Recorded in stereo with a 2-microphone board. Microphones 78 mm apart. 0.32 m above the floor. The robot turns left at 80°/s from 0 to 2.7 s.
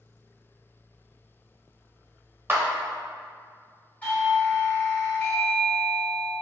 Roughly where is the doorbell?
Centre.